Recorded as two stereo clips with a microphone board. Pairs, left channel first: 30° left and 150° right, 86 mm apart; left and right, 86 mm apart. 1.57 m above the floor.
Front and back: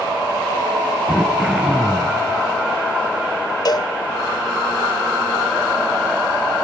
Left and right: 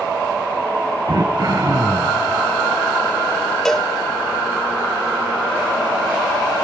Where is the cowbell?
5° left, 0.6 m.